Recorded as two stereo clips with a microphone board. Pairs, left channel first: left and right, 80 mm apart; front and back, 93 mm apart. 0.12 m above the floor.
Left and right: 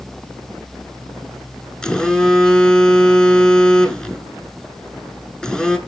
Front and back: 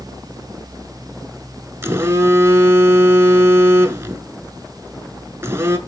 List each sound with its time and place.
1.8 s a phone buzzing: 160° left, 0.6 m